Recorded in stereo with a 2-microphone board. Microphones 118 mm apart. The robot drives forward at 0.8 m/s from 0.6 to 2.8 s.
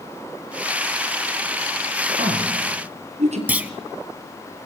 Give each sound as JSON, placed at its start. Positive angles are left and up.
{"t": 2.2, "sound": "a woman speaking", "side_deg": -60, "distance_m": 6.0}
{"t": 3.5, "sound": "a clunk", "side_deg": -15, "distance_m": 0.9}